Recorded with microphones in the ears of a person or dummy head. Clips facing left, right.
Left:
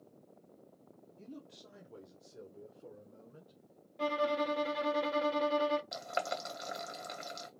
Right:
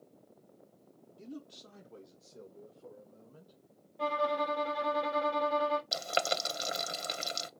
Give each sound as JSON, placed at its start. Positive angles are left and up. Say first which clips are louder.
{"t": 1.2, "sound": "a man speaking", "louder": "right 4 dB", "side_deg": -15, "distance_m": 0.6}
{"t": 4.0, "sound": "a violin", "louder": "even", "side_deg": 35, "distance_m": 0.9}
{"t": 5.9, "sound": "boiling", "louder": "right 4 dB", "side_deg": -40, "distance_m": 0.7}